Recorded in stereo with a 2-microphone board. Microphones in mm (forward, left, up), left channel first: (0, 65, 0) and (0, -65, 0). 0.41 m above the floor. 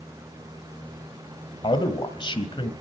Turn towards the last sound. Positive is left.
turn(degrees=40)  # may be behind; listen again after turning